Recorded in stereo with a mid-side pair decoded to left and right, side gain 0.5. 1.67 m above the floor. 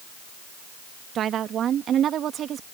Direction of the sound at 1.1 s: 60° right.